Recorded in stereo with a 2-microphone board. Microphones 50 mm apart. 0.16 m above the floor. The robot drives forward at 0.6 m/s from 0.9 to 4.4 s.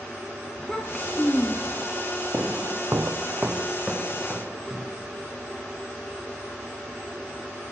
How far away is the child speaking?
About 0.9 m.